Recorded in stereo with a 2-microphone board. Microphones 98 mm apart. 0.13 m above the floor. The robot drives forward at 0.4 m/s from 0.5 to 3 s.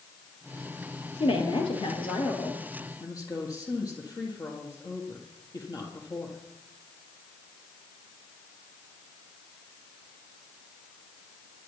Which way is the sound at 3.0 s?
40° left (ahead or behind).